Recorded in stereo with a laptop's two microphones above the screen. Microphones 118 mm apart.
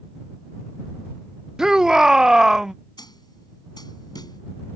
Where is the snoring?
I don't hear snoring.